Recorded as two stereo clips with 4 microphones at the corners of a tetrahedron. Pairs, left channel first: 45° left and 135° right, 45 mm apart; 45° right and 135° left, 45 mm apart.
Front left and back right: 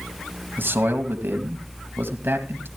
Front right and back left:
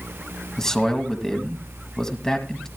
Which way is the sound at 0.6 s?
120° right.